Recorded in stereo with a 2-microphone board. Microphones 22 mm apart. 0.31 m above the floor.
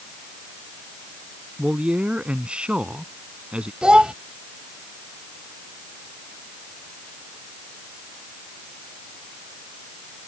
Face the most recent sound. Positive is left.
turn(degrees=-50)  # may be behind; listen again after turning